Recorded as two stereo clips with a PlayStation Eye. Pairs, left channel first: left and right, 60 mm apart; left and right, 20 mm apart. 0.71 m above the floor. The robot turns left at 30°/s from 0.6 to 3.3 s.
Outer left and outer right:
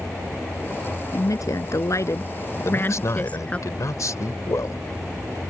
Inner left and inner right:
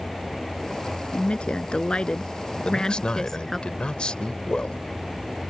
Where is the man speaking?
55° left (ahead or behind); by 4.8 s 70° left (ahead or behind).